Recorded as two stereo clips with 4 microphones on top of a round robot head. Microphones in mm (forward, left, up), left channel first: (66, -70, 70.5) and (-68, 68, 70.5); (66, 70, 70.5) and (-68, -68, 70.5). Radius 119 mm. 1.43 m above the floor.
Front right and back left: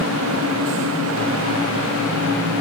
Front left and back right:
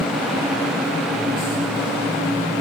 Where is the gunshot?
I don't hear a gunshot.